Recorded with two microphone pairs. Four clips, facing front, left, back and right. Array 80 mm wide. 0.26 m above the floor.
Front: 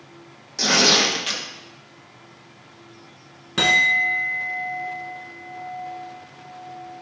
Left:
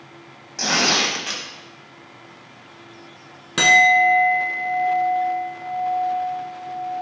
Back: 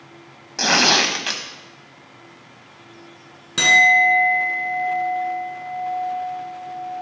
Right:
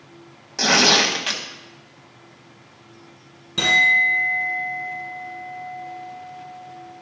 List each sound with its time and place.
0.6 s tearing paper: 150° right, 1.2 m
3.6 s a clink: 85° left, 1.5 m